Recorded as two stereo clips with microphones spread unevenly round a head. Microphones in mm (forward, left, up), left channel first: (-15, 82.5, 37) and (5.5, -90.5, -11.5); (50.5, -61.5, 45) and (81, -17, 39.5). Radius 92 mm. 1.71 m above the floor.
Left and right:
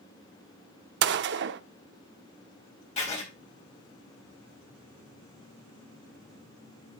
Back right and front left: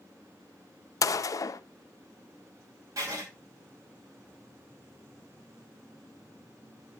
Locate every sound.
1.0 s a gunshot: 105° right, 0.5 m
3.0 s writing: 65° left, 2.5 m